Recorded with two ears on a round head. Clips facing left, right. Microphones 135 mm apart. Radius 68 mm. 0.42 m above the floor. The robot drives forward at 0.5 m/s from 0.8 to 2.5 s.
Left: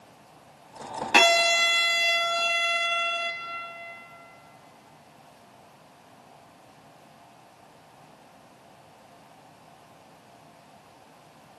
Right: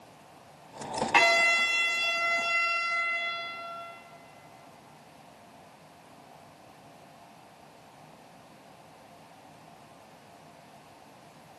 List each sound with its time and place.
1.1 s a violin: 65° left (ahead or behind), 1.2 m; by 3.3 s 75° left (ahead or behind), 1.2 m